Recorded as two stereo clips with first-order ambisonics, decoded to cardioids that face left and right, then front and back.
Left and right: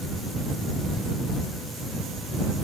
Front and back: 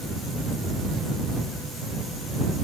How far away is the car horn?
I don't hear a car horn.